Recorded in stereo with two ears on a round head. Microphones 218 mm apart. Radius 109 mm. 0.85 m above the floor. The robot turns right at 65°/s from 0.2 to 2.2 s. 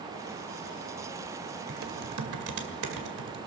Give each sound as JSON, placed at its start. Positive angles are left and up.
{"t": 1.7, "sound": "typing on a keyboard", "azimuth_deg": -125, "distance_m": 2.0}